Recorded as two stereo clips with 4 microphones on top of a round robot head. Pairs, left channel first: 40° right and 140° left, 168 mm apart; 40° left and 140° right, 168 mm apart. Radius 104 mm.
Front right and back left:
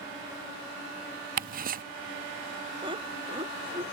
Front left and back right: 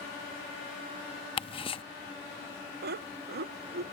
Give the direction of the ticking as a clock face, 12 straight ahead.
9 o'clock.